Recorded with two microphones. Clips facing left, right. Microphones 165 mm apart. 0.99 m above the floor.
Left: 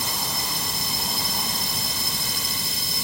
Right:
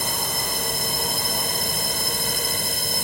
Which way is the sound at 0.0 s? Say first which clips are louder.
Right 2 dB; 55° right (ahead or behind).